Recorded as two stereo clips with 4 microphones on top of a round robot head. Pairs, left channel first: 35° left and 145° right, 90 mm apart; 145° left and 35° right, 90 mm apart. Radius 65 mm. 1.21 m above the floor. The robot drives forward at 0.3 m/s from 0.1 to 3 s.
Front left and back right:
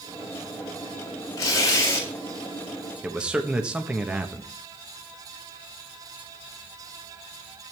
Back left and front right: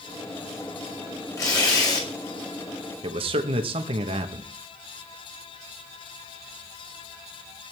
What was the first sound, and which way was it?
Tearing paper, 90° left.